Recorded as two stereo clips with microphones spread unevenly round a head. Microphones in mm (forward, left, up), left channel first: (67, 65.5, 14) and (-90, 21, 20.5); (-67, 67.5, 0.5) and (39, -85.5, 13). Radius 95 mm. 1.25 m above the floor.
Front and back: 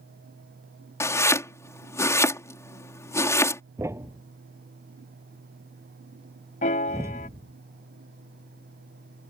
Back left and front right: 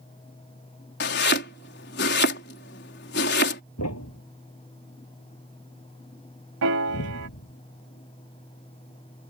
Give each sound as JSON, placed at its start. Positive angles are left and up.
{"t": 1.0, "sound": "chopping", "azimuth_deg": 90}
{"t": 3.8, "sound": "a thud", "azimuth_deg": 125}
{"t": 6.6, "sound": "a piano", "azimuth_deg": -40}